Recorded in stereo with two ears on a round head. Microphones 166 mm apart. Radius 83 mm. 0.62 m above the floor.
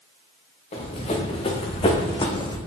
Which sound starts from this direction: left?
Running footsteps, at 0.7 s.